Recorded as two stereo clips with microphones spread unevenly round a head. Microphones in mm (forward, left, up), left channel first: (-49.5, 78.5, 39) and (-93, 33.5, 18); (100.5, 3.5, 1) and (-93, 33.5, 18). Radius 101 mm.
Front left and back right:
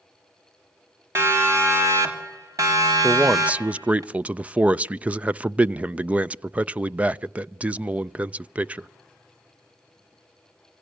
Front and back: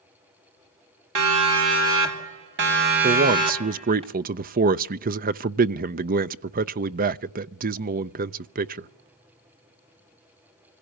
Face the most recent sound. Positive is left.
turn(degrees=-160)